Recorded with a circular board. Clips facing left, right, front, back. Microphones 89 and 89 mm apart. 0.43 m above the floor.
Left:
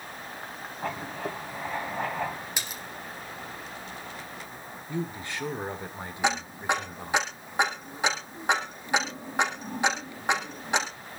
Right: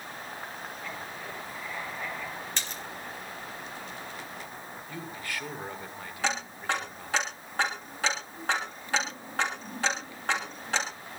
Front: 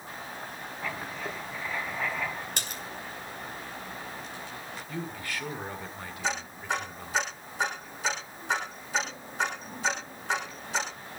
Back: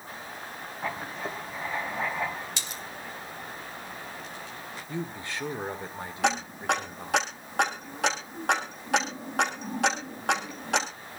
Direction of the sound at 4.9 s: 135° left.